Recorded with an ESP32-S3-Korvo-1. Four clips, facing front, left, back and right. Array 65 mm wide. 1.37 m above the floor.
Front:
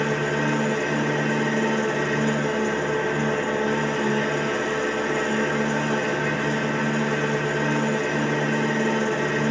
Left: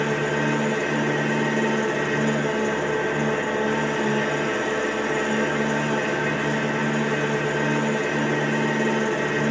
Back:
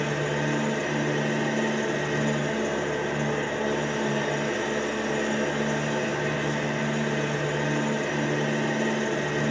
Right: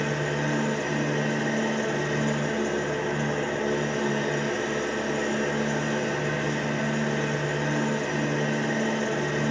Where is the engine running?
45° left, 4.5 m.